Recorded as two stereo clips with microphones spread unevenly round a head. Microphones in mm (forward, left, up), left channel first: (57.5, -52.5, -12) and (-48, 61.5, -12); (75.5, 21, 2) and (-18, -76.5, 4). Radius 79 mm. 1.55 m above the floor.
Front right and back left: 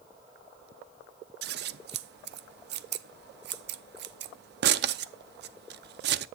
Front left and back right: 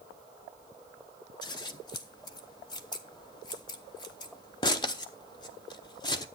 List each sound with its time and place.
1.4 s scissors: 115° left, 0.6 m